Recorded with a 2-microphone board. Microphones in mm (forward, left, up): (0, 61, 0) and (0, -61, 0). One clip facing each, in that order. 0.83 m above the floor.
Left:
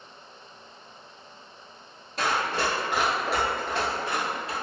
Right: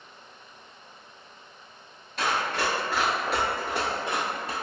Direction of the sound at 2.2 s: 45° left (ahead or behind).